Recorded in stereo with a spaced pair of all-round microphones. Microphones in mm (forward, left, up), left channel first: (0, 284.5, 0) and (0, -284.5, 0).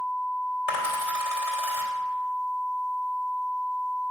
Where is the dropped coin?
75° left (ahead or behind), 3.5 m.